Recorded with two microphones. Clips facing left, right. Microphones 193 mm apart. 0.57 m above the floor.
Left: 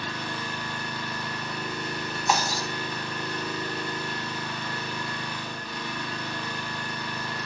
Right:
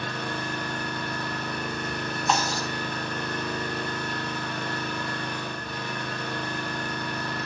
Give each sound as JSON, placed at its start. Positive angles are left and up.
{"t": 0.0, "sound": "an engine running", "side_deg": -55, "distance_m": 1.7}
{"t": 2.3, "sound": "breaking glass", "side_deg": 5, "distance_m": 2.5}